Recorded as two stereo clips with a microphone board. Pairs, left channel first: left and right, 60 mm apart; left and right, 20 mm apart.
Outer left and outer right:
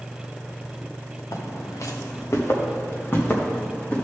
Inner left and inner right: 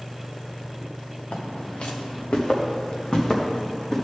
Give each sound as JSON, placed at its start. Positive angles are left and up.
{"t": 1.3, "sound": "footsteps", "side_deg": 70, "distance_m": 1.9}